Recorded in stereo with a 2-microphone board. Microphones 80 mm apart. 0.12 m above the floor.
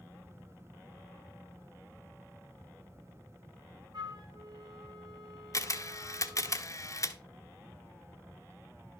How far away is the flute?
About 1.6 m.